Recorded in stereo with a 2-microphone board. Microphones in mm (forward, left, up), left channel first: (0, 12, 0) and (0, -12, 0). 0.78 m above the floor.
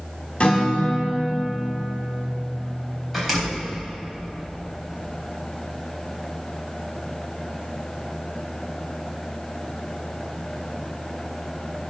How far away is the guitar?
About 2.5 m.